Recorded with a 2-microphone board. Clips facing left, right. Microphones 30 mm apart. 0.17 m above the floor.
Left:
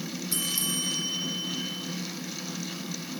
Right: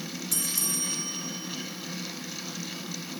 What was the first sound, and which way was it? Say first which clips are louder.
A bell: left 2 dB; 30° left (ahead or behind).